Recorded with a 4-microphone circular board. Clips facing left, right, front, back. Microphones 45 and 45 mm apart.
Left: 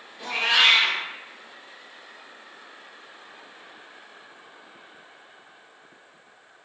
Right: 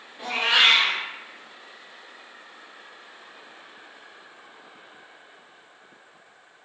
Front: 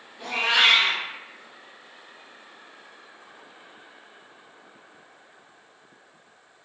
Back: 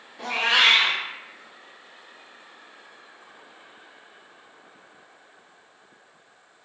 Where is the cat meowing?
160° right, 0.6 m.